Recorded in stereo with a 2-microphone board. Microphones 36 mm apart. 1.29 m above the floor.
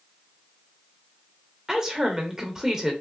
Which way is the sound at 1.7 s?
15° right (ahead or behind).